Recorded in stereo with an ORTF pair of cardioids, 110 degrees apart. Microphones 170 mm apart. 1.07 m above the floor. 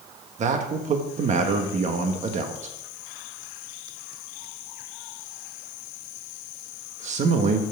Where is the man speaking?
45° right, 1.3 m.